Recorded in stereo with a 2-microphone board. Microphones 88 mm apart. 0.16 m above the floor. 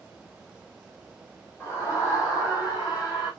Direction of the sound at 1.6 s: 30° left (ahead or behind).